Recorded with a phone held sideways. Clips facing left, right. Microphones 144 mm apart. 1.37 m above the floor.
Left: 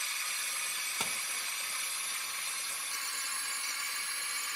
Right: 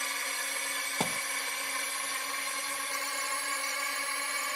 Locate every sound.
0.0 s a drone: 65° right (ahead or behind); by 4.6 s 70° right (ahead or behind)
1.0 s a thud: 50° right (ahead or behind)